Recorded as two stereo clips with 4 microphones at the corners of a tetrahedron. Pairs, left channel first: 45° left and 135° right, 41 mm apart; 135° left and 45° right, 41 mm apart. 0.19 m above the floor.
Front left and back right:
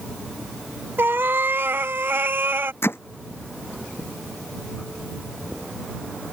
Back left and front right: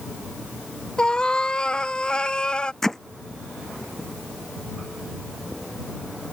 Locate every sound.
1.0 s a cat meowing: 160° right
2.8 s hammering: 55° left